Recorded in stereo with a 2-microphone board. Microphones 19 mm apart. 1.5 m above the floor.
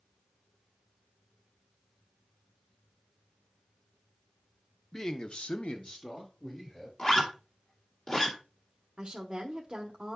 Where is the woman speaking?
35° right (ahead or behind), 1.0 m.